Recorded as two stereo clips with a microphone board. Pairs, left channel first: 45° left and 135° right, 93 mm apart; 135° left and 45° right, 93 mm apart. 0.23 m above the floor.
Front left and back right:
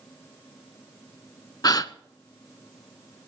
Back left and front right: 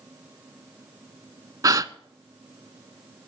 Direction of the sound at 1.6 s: 5° left.